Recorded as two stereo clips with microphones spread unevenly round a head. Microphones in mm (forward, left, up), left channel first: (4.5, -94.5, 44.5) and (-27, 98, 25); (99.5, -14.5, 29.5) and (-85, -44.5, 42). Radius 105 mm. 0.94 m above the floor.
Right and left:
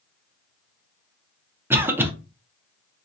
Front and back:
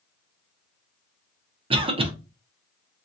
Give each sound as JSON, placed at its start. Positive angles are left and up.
{"t": 1.7, "sound": "a cough", "azimuth_deg": 155, "distance_m": 0.5}